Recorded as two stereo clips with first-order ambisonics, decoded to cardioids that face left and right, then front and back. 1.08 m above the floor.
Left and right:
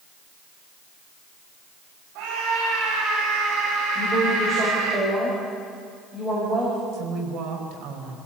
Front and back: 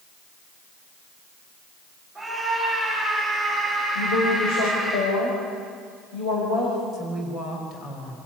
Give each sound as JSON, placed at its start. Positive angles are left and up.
{"t": 2.1, "sound": "a scream", "azimuth_deg": -85, "distance_m": 6.5}
{"t": 4.0, "sound": "a woman speaking", "azimuth_deg": -25, "distance_m": 6.0}
{"t": 6.9, "sound": "a woman speaking", "azimuth_deg": -55, "distance_m": 4.0}